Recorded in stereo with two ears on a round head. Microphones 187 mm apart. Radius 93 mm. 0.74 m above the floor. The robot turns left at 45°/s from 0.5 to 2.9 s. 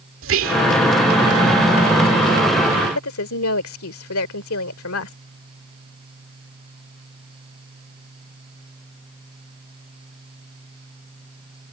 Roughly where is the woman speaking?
Left.